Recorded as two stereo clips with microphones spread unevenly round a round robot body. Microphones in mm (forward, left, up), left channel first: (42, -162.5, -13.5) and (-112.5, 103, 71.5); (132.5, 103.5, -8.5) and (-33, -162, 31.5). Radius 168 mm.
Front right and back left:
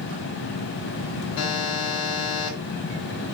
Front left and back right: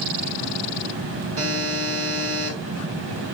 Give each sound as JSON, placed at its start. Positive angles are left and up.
{"t": 1.4, "sound": "a buzzer", "azimuth_deg": -75, "distance_m": 3.5}